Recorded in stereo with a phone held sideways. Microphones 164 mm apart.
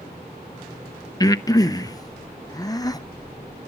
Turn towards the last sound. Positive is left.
turn(degrees=20)  # may be behind; listen again after turning